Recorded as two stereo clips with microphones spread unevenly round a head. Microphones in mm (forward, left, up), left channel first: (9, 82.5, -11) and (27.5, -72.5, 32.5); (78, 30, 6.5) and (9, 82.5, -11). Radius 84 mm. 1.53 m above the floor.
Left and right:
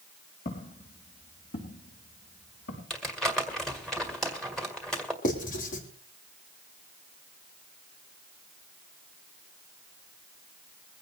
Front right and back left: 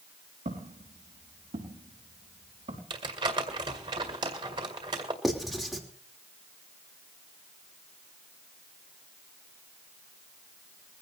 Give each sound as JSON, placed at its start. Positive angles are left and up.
{"t": 0.5, "sound": "footsteps", "azimuth_deg": 150, "distance_m": 4.0}
{"t": 2.9, "sound": "crumpling", "azimuth_deg": -165, "distance_m": 1.9}
{"t": 5.2, "sound": "writing", "azimuth_deg": 50, "distance_m": 3.0}